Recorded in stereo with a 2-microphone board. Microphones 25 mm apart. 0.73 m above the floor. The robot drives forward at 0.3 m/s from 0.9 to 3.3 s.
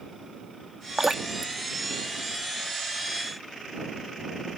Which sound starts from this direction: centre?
Dripping, at 1.0 s.